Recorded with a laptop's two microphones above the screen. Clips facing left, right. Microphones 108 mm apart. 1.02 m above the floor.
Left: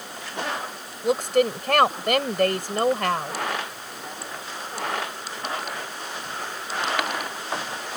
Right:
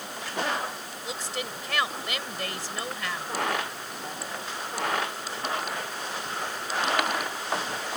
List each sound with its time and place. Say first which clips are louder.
1.0 s a woman speaking: left 15 dB; 60° left (ahead or behind)